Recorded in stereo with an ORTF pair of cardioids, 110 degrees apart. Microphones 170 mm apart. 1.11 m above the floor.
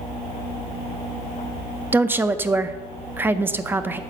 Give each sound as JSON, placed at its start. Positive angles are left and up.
{"t": 1.9, "sound": "a woman speaking", "azimuth_deg": -15, "distance_m": 0.5}